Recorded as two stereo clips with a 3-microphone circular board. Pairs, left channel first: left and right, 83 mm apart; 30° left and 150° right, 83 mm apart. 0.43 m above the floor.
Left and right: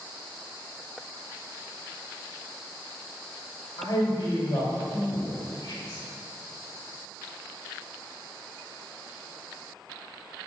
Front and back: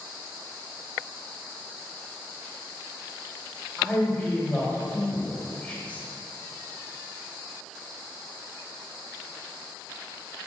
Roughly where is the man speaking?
Left.